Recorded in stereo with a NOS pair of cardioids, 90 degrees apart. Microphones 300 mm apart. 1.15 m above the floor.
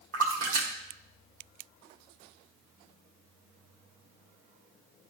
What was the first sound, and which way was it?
A splash, 50° right.